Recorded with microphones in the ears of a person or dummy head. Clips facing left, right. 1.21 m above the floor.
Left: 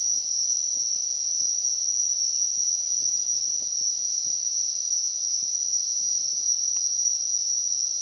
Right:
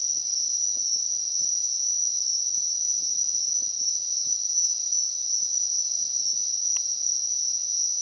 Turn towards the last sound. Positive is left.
turn(degrees=-20)  # may be behind; listen again after turning